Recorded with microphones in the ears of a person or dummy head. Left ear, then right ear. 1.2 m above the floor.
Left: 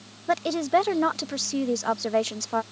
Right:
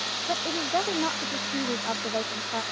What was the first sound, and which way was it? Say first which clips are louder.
A woman speaking: left 7 dB; 85° left.